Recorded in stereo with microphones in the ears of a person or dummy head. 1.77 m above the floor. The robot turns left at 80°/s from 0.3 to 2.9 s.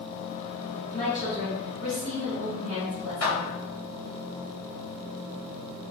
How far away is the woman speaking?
About 1.6 m.